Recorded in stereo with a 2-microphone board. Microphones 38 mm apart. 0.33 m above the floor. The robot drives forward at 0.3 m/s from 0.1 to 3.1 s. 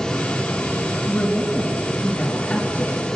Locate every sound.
1.1 s a woman speaking: 35° left (ahead or behind), 4 m; by 3.1 s 30° left (ahead or behind), 4.5 m